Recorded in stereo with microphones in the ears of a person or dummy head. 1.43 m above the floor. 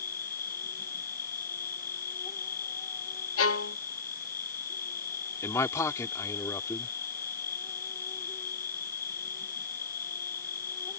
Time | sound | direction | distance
0.0 | an insect | 20° left (ahead or behind) | ?
3.4 | a violin | 85° left | ?
5.4 | a man speaking | 15° left (ahead or behind) | ?